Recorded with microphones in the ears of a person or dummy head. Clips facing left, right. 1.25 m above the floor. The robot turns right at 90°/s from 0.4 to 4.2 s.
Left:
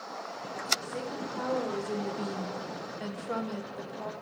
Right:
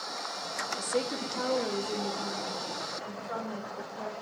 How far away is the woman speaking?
About 1.1 m.